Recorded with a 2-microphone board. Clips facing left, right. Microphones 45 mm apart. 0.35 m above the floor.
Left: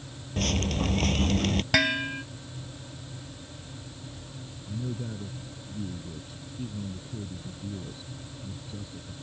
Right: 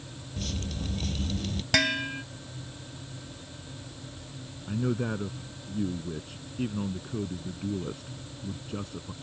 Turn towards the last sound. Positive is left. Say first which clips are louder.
# right 7 dB
turn(degrees=-60)  # may be behind; listen again after turning